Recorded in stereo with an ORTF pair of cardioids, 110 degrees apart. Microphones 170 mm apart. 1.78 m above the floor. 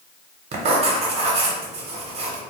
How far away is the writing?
About 0.7 m.